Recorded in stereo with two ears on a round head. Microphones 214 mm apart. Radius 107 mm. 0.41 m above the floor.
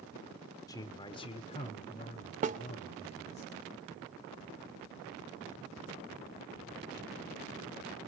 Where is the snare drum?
35° right (ahead or behind), 0.8 m.